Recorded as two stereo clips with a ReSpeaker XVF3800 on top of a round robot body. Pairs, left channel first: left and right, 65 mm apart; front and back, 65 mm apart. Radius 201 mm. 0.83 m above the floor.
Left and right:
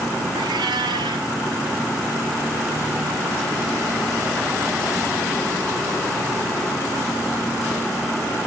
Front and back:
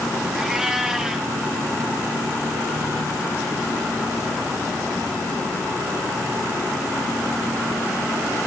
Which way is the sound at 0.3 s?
100° right.